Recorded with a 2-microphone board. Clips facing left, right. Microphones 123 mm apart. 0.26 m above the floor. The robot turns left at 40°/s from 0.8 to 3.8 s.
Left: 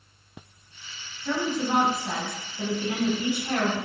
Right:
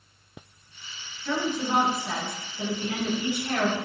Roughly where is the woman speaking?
Left.